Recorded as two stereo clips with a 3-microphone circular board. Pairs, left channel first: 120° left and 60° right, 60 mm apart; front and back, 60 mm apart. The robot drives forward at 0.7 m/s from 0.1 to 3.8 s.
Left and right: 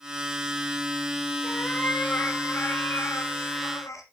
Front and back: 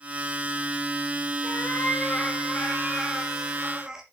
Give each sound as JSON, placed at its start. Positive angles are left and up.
{"t": 1.4, "sound": "a cat meowing", "azimuth_deg": 50, "distance_m": 2.0}